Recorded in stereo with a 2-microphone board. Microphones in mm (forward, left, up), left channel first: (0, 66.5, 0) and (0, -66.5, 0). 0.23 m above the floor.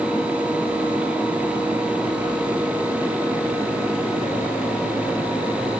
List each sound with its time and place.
Only background noise.